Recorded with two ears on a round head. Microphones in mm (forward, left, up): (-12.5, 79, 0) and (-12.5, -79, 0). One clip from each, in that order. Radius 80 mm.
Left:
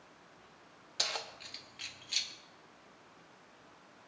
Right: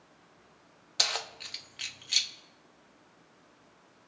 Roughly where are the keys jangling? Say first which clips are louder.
Right 6 dB; right.